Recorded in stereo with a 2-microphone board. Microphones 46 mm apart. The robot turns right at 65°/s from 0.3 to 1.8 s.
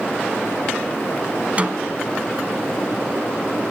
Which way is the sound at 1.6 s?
35° right (ahead or behind).